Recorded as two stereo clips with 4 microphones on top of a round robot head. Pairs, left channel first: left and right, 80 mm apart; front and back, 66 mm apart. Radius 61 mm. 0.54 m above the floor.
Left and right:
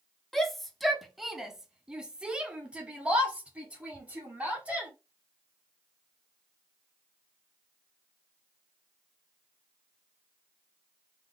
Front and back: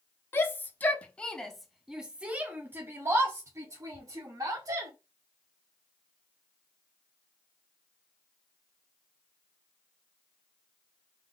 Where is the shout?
5° left, 1.3 m; by 4.9 s 160° right, 2 m.